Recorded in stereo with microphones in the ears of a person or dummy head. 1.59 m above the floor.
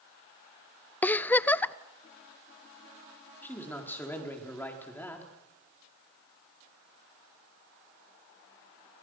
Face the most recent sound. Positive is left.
turn(degrees=15)  # may be behind; listen again after turning